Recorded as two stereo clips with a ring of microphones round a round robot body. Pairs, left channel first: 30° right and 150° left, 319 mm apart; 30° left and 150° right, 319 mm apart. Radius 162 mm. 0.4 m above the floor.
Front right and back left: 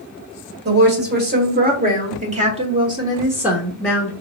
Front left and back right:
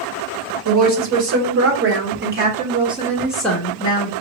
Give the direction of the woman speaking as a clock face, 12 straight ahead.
5 o'clock.